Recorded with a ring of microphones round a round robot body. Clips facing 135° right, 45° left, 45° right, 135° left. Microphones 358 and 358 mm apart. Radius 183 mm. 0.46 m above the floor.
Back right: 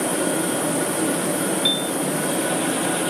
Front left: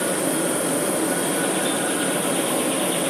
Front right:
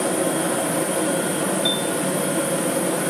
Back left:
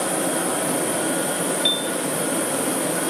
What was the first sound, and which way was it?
A piano, 150° right.